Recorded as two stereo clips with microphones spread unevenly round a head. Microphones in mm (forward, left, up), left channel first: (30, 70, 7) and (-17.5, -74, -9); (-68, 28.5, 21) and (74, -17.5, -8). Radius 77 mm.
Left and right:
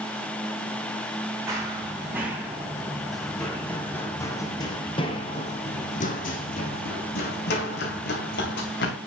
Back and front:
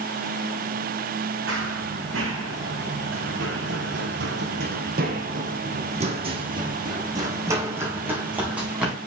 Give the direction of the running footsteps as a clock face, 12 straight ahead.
1 o'clock.